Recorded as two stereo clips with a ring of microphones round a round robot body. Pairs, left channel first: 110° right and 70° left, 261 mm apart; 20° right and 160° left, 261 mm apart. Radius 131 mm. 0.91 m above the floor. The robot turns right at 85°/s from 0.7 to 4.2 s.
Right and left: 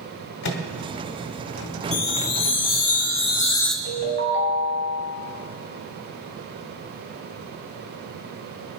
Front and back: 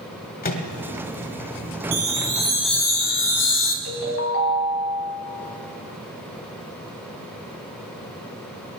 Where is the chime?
175° right, 1.4 m; by 3.8 s 20° right, 1.4 m.